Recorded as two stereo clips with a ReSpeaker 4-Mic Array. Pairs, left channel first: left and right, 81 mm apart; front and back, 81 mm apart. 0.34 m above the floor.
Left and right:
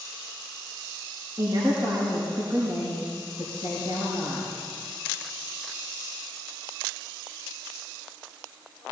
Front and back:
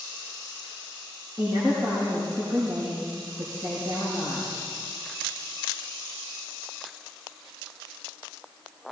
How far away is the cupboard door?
I don't hear a cupboard door.